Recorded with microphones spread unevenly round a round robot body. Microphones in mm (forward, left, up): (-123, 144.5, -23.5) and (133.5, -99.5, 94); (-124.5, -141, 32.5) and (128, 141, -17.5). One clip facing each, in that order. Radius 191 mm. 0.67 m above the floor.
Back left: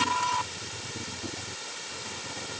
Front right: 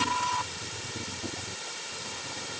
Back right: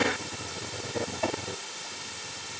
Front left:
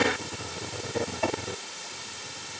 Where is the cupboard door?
No cupboard door in this recording.